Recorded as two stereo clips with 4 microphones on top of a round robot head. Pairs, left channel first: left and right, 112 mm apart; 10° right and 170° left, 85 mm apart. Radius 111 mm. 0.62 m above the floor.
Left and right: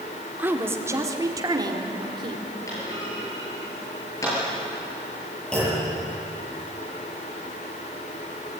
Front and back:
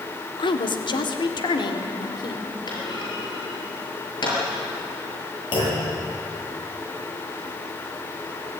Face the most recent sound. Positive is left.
turn(degrees=5)